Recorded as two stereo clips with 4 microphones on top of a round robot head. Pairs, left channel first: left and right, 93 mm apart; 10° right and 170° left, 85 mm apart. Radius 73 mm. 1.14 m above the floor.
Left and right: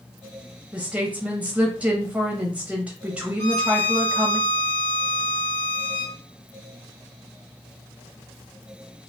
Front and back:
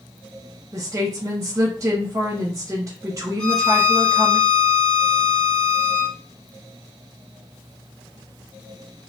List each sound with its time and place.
0.7 s a woman speaking: 160° right, 0.7 m
3.4 s a violin: 65° left, 0.6 m